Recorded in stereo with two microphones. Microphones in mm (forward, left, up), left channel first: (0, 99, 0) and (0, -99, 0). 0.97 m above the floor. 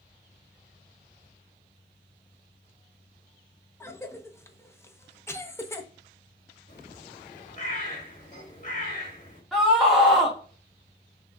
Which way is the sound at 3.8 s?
15° left (ahead or behind).